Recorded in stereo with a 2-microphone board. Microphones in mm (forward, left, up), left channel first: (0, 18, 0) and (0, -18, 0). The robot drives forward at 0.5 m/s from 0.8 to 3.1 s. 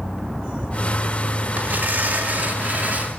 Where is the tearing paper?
60° right (ahead or behind), 2.5 m; by 3.1 s 45° right (ahead or behind), 3 m.